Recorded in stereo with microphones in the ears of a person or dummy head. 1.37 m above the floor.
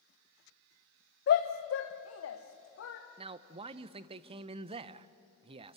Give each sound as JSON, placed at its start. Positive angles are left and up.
{"t": 1.3, "sound": "a shout", "side_deg": 50, "distance_m": 1.0}
{"t": 3.2, "sound": "a man speaking", "side_deg": -30, "distance_m": 0.7}